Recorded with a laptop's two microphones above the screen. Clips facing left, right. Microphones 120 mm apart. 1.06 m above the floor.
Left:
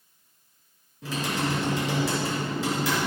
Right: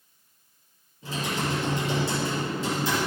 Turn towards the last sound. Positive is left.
turn(degrees=75)  # may be behind; listen again after turning